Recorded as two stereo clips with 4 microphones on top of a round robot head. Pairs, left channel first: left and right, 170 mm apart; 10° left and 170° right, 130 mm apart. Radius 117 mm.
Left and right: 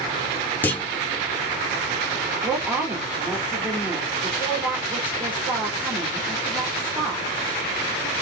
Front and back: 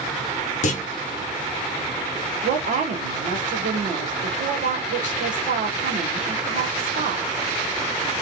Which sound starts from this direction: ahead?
A clunk, at 0.6 s.